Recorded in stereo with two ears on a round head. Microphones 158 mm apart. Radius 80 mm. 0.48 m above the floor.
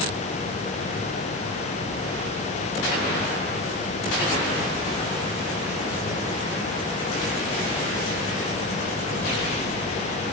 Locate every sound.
Only background noise.